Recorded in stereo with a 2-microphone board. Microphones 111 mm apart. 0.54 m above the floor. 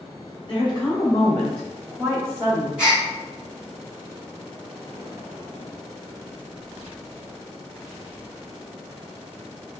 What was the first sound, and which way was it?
A woman speaking, 45° left (ahead or behind).